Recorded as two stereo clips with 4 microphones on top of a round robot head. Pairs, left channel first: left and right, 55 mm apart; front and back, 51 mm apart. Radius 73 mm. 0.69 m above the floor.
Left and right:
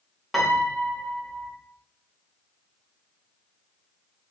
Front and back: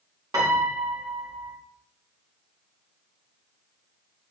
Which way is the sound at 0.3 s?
Straight behind.